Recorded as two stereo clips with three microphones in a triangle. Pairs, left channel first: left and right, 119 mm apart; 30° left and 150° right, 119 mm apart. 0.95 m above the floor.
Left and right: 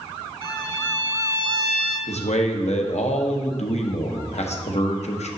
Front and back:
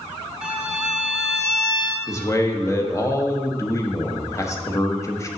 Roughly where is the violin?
Right.